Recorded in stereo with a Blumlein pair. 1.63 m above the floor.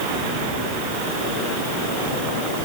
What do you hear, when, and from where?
Only background noise.